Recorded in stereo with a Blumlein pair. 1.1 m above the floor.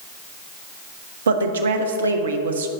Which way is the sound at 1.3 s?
65° right.